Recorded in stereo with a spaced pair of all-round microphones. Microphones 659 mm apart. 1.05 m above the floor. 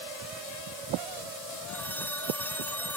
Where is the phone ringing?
5° left (ahead or behind).